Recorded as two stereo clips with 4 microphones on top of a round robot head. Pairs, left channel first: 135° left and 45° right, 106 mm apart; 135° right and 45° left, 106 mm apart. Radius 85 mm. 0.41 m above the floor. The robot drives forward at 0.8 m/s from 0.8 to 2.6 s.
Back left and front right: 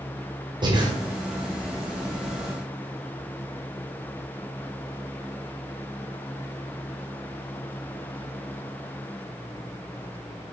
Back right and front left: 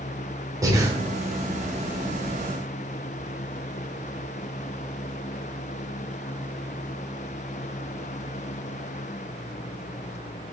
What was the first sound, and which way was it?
Breathing, 10° right.